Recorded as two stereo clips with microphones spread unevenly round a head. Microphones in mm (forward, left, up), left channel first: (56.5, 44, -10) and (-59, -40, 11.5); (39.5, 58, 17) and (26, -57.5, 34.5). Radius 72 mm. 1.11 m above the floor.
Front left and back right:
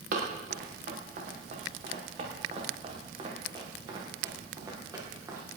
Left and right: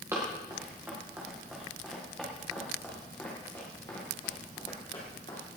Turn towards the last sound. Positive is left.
turn(degrees=145)